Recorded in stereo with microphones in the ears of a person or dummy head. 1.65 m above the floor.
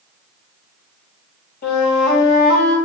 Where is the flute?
65° left (ahead or behind), 4 m.